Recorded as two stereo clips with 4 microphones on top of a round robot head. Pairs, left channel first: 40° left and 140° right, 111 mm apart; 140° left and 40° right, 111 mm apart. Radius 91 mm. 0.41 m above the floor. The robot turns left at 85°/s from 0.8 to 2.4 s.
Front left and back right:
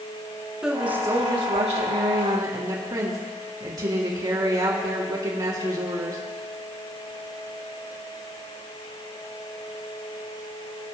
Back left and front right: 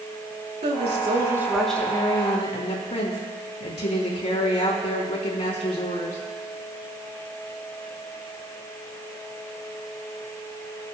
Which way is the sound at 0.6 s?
60° right.